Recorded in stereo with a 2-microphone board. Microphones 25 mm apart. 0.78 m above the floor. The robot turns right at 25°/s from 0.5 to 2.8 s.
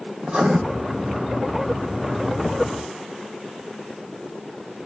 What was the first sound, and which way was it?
Writing, 40° right (ahead or behind).